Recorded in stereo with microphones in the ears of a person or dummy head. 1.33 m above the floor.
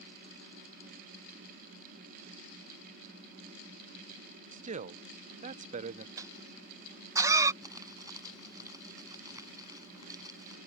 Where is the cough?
20° right (ahead or behind).